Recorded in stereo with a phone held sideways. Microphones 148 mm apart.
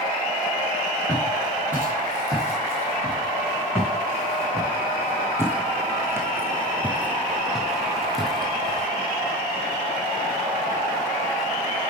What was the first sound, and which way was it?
Footsteps, 15° right (ahead or behind).